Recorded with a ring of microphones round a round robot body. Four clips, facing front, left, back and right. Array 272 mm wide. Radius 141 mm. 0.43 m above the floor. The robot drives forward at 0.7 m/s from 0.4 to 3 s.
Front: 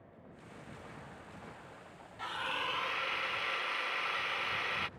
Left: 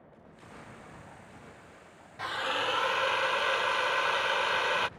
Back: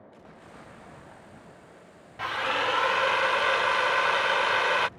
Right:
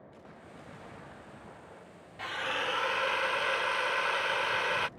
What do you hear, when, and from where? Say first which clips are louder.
2.2 s a drill: left 3 dB, back 10 dB; 165° left; by 4.9 s 175° left